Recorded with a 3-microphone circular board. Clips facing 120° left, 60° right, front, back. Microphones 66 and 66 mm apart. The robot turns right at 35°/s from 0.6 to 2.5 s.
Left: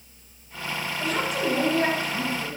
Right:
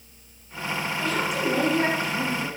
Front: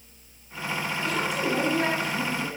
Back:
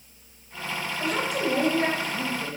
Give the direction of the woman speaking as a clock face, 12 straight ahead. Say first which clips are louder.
Left 1 dB, back 2 dB; 5 o'clock.